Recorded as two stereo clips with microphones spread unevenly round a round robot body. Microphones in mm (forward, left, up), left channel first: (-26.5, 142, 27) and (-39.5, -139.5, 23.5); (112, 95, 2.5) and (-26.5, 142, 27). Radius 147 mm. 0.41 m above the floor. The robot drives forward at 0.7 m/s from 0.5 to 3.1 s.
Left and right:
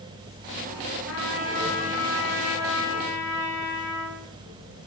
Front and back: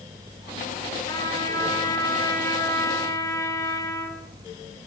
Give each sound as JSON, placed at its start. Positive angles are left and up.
{"t": 1.1, "sound": "a trumpet", "azimuth_deg": 40, "distance_m": 8.0}